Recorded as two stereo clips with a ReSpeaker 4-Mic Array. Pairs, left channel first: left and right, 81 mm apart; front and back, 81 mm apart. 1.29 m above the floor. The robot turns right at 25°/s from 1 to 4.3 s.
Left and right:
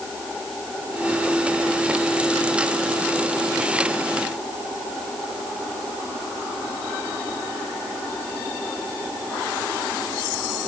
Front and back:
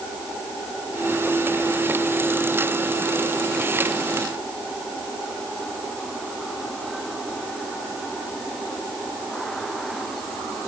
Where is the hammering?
No hammering in this recording.